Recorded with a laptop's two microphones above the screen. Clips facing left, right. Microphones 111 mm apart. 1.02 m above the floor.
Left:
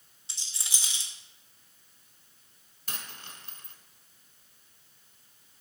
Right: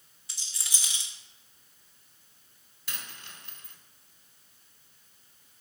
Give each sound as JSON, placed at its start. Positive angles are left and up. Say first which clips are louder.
{"t": 0.3, "sound": "a rattle", "louder": "even", "side_deg": 25, "distance_m": 1.2}
{"t": 2.9, "sound": "a dropped coin", "louder": "left 1 dB", "side_deg": 45, "distance_m": 1.5}